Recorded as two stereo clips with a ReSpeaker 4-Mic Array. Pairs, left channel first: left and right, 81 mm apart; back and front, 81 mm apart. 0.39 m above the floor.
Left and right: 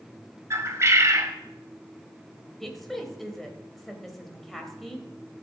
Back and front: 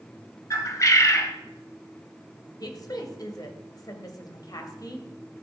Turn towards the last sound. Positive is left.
turn(degrees=180)